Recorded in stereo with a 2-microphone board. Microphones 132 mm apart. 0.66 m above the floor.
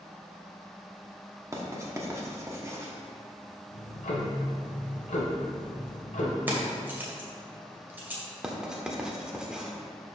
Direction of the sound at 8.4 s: 5° right (ahead or behind).